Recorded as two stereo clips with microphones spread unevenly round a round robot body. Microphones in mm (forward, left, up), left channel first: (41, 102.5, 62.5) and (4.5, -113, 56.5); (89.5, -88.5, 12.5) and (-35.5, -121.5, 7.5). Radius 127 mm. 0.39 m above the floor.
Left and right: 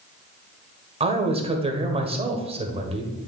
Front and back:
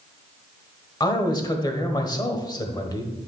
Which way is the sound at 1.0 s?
40° right.